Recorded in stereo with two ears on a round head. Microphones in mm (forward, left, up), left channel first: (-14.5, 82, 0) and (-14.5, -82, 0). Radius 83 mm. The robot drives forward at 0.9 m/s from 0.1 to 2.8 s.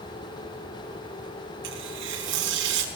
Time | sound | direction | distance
1.6 | tearing paper | 75° right (ahead or behind) | 5 m